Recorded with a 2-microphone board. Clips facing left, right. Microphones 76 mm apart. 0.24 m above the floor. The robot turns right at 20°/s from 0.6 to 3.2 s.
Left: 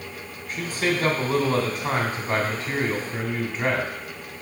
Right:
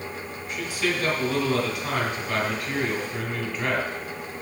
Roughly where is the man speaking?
Left.